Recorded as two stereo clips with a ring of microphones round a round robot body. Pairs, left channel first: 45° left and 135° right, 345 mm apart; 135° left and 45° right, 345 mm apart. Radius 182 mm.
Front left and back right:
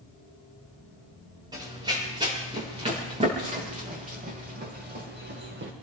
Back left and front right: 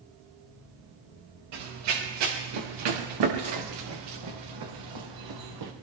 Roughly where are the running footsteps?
Ahead right.